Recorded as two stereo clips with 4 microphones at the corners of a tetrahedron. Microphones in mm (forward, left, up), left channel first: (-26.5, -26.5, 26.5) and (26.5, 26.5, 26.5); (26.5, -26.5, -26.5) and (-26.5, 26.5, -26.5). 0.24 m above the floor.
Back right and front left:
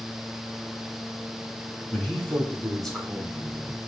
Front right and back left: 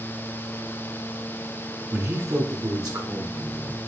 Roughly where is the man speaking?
Behind.